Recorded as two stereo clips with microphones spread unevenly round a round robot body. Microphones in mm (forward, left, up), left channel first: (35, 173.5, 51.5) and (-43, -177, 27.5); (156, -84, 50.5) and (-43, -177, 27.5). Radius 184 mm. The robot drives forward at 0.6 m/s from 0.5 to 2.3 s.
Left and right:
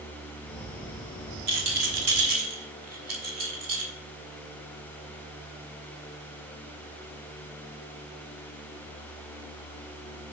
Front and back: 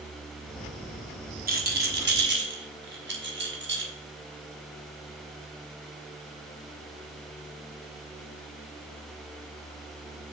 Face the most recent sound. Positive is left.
turn(degrees=-145)